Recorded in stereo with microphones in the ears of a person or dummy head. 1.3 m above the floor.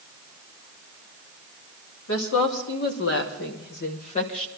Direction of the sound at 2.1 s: 70° left (ahead or behind).